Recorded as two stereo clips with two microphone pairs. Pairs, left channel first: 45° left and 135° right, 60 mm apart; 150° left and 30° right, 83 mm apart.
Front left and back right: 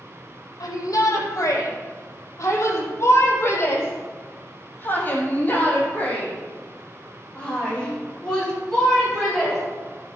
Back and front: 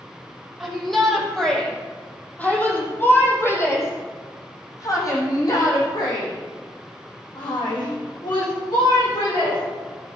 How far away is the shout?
About 5.5 m.